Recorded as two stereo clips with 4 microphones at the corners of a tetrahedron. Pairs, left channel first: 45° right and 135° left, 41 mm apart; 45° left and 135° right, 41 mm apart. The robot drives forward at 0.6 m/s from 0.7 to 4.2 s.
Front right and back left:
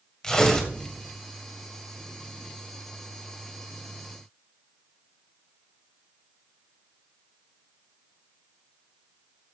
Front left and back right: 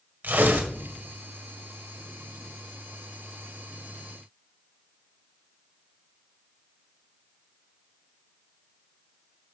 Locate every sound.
0.2 s tearing paper: 115° right, 1.9 m